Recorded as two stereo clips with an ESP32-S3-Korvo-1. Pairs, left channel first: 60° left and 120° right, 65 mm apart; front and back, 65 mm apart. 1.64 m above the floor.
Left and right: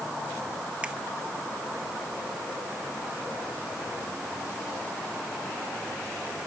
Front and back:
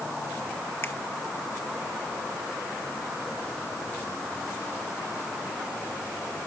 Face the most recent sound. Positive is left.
turn(degrees=-50)